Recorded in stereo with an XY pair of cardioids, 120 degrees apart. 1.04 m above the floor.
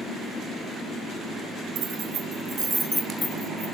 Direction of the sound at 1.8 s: 60° right.